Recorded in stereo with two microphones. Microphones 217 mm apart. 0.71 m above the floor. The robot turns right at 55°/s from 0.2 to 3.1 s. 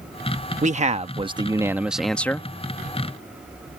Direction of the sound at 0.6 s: 80° right.